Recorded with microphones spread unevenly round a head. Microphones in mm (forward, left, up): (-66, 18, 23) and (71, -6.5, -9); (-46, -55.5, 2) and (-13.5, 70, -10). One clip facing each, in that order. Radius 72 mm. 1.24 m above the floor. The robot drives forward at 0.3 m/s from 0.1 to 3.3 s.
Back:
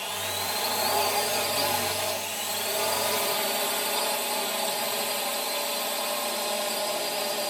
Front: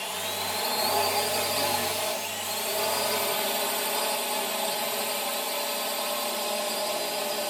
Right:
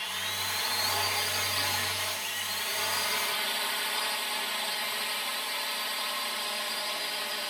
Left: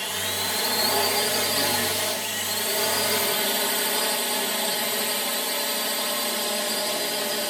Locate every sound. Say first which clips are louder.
0.0 s a drone: even, left 8 dB; 75° left; by 7.5 s 80° left